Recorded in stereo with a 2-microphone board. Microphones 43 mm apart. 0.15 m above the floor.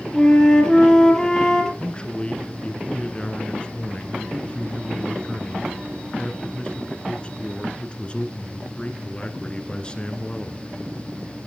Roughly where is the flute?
Centre.